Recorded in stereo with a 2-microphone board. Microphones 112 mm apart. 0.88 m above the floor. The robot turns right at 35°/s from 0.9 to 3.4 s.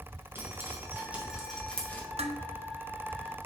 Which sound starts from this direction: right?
Dishes clattering, at 2.2 s.